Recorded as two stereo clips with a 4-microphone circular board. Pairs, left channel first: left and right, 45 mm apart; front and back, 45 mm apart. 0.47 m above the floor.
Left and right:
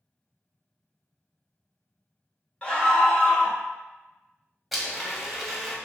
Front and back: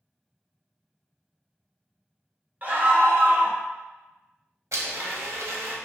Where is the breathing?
No breathing in this recording.